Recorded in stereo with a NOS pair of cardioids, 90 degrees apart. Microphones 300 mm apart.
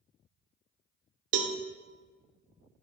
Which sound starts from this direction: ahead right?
A cowbell, at 1.3 s.